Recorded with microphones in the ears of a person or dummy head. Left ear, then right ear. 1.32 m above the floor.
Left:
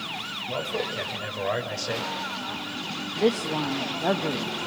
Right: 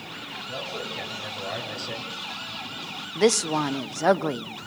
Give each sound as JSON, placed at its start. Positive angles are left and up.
{"t": 0.5, "sound": "a man speaking", "side_deg": 70, "distance_m": 7.0}
{"t": 3.1, "sound": "a woman speaking", "side_deg": -70, "distance_m": 1.1}